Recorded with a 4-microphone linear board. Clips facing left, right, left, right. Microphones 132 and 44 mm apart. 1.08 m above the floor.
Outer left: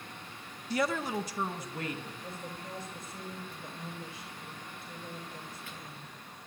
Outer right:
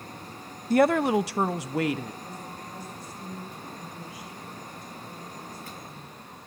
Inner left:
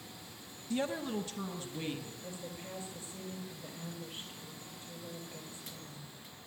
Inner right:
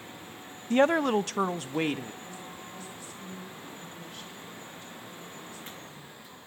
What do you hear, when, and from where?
0.7 s a woman speaking: 50° right (ahead or behind), 0.5 m; by 2.1 s 90° right, 1.5 m
2.2 s a woman speaking: 35° left (ahead or behind), 5.5 m